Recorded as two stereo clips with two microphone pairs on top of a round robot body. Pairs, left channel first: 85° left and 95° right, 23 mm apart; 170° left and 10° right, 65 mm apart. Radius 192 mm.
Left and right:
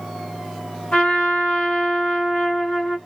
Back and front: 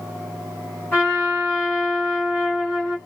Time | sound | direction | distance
0.9 | a trumpet | 110° left | 2 m